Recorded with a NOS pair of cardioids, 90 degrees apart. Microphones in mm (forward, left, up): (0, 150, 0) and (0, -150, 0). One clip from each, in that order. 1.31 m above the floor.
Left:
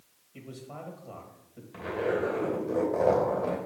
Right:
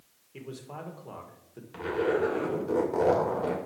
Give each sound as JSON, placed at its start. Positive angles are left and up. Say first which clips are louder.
{"t": 0.3, "sound": "a man speaking", "louder": "right 2 dB", "azimuth_deg": -35, "distance_m": 1.9}
{"t": 1.7, "sound": "a zipper", "louder": "right 2 dB", "azimuth_deg": -45, "distance_m": 2.5}